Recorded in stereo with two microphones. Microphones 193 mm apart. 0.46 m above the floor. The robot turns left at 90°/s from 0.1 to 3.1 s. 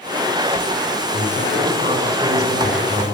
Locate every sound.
1.1 s a man speaking: 85° right, 5 m; by 3.0 s 100° left, 5 m